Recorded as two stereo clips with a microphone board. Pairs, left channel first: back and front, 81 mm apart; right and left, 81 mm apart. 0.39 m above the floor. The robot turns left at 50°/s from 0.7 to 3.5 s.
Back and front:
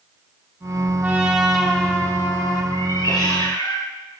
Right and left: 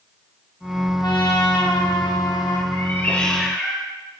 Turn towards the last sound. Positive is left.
turn(degrees=180)